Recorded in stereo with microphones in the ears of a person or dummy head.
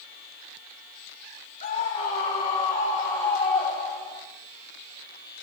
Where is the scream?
45° left (ahead or behind), 4 m; by 4.2 s 20° left (ahead or behind), 6.5 m.